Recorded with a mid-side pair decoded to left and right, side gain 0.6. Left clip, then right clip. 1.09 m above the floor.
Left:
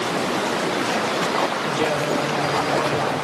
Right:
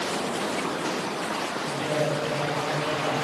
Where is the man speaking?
65° left, 3 m.